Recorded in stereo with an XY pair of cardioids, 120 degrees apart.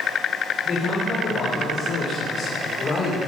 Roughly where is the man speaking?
Ahead left.